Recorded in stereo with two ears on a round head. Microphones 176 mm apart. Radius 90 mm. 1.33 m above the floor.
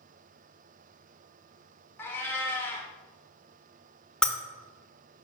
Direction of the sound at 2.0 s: 10° left (ahead or behind).